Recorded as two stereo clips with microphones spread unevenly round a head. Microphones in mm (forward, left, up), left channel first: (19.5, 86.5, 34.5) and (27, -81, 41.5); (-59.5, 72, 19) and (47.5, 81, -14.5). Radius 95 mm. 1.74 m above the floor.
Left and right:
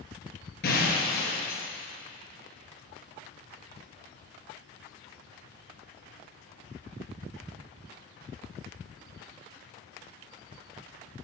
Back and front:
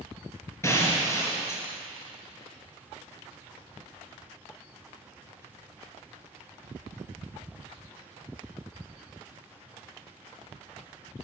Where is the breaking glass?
130° left, 4 m.